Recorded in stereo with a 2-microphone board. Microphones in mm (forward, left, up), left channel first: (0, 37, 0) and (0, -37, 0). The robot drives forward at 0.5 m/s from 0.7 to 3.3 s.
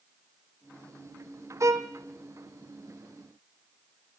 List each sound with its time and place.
1.6 s a violin: 45° right (ahead or behind), 1.4 m; by 1.9 s 40° right (ahead or behind), 1.5 m